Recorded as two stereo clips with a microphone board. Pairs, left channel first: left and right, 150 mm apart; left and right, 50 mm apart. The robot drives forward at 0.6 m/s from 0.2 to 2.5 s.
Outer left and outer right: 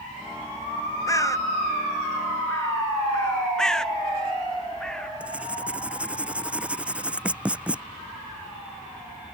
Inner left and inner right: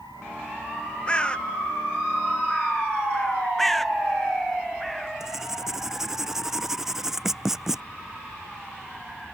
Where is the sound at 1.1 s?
20° left (ahead or behind).